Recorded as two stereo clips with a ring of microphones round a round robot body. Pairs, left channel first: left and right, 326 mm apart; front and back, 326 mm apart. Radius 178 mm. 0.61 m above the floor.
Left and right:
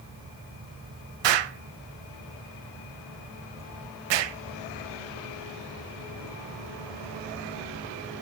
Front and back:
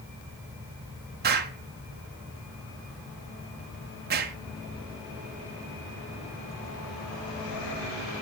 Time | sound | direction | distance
1.2 | an explosion | 115° right | 0.8 m